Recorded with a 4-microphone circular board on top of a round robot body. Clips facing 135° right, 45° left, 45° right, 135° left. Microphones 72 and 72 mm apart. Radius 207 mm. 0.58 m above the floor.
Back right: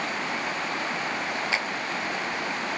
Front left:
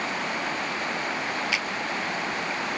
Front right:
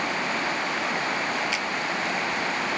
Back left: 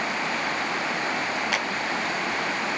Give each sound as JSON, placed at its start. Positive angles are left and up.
{"t": 1.5, "sound": "a clap", "azimuth_deg": 170}